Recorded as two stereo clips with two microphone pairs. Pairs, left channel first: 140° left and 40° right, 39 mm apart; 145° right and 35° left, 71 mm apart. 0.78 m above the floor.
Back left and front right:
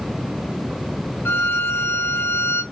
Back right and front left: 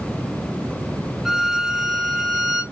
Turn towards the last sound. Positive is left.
turn(degrees=120)